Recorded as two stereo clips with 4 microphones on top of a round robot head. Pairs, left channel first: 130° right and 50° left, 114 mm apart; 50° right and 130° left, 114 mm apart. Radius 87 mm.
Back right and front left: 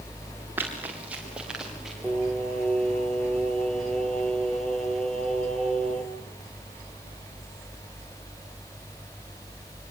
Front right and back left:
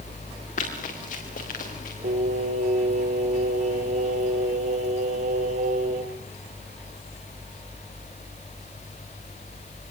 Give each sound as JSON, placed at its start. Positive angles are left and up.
{"t": 0.6, "sound": "running footsteps", "azimuth_deg": -25, "distance_m": 7.0}
{"t": 2.0, "sound": "singing", "azimuth_deg": 145, "distance_m": 4.0}